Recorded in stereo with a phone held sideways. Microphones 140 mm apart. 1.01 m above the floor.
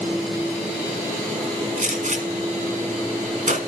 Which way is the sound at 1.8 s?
70° right (ahead or behind).